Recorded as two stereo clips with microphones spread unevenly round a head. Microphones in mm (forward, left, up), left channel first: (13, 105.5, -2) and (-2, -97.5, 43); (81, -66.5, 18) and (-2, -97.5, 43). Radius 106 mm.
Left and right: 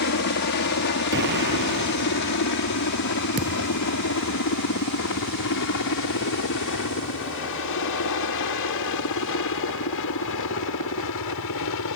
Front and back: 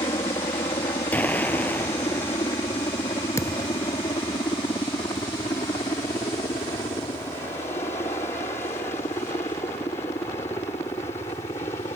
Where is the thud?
40° right.